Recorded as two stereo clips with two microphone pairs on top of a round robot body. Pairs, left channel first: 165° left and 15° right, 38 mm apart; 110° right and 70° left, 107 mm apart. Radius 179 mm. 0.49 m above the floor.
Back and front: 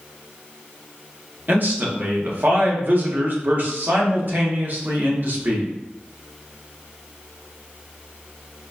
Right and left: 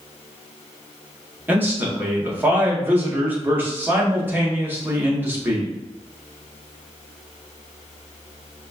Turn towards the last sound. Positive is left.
turn(degrees=0)